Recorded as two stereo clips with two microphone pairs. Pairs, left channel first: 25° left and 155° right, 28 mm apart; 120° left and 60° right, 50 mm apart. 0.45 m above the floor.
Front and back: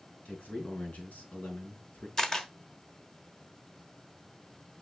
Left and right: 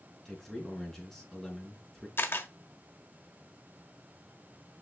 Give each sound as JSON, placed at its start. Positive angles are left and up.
{"t": 0.2, "sound": "a man speaking", "azimuth_deg": 40, "distance_m": 4.0}
{"t": 2.2, "sound": "a camera shutter", "azimuth_deg": 95, "distance_m": 1.1}